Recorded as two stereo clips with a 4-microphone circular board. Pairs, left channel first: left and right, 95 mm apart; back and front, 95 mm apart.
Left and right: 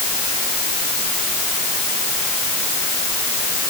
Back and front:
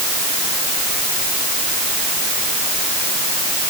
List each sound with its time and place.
Only background noise.